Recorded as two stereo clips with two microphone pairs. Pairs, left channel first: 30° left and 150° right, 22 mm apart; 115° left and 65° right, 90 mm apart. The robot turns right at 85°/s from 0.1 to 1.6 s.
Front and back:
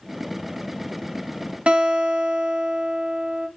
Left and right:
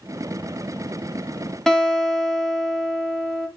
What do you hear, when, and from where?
1.7 s a guitar: 160° right, 3 m